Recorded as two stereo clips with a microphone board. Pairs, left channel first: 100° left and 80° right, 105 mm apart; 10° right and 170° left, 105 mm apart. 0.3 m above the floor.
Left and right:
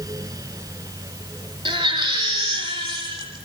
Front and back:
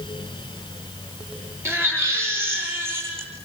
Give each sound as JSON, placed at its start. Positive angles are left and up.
{"t": 1.6, "sound": "a baby crying", "azimuth_deg": -125, "distance_m": 8.5}